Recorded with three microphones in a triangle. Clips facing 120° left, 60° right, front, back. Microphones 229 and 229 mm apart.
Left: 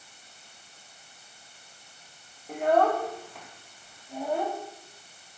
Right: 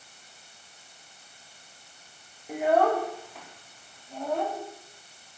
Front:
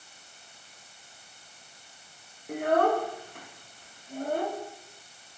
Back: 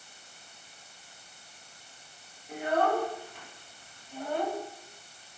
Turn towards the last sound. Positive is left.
turn(degrees=35)